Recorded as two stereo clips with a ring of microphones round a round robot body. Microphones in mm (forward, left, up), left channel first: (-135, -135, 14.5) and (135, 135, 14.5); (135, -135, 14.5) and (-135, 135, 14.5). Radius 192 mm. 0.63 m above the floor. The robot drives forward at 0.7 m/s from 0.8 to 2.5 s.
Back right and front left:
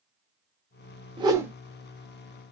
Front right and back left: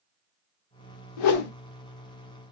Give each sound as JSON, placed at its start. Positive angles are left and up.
{"t": 1.2, "sound": "a whoosh", "azimuth_deg": -35, "distance_m": 1.0}